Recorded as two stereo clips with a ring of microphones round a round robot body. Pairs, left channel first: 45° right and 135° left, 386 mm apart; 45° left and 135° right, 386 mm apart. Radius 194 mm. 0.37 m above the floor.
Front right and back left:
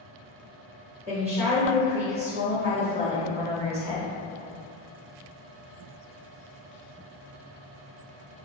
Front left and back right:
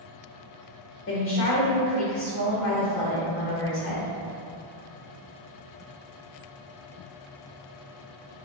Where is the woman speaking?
70° left, 1.0 m.